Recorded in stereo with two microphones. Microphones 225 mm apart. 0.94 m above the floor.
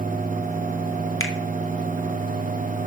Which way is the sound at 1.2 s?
65° left (ahead or behind).